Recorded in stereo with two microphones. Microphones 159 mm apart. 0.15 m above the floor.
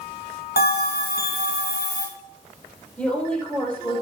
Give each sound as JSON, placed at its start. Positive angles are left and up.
{"t": 0.6, "sound": "a bell", "side_deg": 85, "distance_m": 4.0}
{"t": 3.0, "sound": "a woman speaking", "side_deg": 5, "distance_m": 4.0}